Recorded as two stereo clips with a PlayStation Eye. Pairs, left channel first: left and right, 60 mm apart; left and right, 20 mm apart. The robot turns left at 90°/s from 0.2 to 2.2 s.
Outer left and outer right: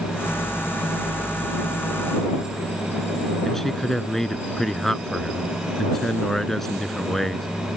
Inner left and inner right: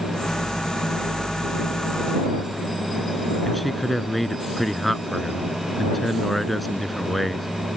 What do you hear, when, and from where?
3.5 s a man speaking: 5° left (ahead or behind)